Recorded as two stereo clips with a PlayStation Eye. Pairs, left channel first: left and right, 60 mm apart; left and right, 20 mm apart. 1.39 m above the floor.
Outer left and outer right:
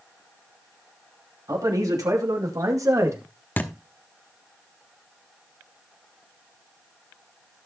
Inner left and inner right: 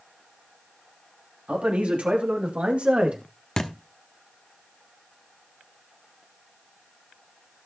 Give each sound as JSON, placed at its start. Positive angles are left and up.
{"t": 1.5, "sound": "a man speaking", "side_deg": -85, "distance_m": 3.0}
{"t": 3.6, "sound": "a thud", "side_deg": 30, "distance_m": 1.0}